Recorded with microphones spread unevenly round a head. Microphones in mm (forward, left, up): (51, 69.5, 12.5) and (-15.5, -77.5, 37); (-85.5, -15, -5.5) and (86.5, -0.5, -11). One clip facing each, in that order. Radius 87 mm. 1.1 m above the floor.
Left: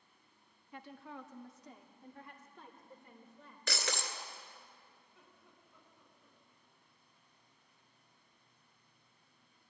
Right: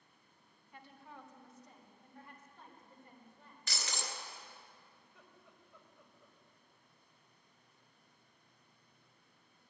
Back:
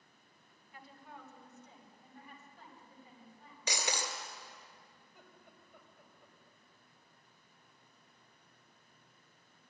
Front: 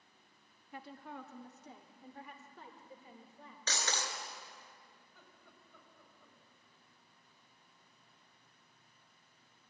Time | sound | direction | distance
0.7 | a woman speaking | 45° left | 1.3 m
3.7 | breaking glass | 110° left | 2 m
5.0 | laughter | 100° right | 5 m